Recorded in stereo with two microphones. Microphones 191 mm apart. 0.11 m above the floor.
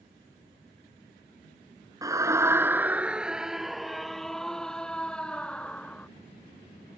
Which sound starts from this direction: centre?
A scream, at 2.0 s.